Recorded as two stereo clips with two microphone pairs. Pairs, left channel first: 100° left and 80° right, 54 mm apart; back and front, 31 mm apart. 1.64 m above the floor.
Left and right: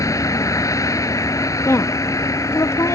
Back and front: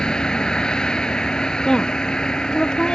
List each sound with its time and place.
0.0 s a vehicle: 110° left
1.6 s a woman speaking: 115° left